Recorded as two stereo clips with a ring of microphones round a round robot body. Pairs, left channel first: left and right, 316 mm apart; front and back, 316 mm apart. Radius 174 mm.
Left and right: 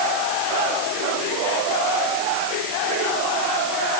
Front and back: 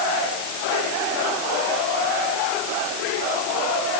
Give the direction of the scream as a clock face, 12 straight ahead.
I don't hear a scream.